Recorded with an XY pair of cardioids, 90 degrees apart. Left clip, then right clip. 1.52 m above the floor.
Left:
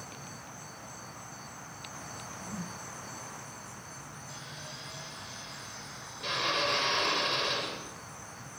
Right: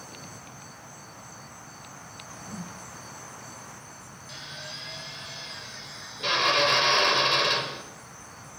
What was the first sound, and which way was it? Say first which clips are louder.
A whoosh: right 1 dB; straight ahead.